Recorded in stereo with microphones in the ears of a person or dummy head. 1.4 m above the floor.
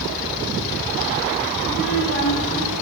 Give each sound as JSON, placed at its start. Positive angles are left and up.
{"t": 1.6, "sound": "a child speaking", "side_deg": 70, "distance_m": 9.0}